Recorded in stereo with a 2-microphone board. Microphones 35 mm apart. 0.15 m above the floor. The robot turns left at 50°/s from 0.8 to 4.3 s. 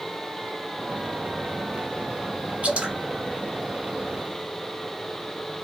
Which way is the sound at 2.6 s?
35° right (ahead or behind).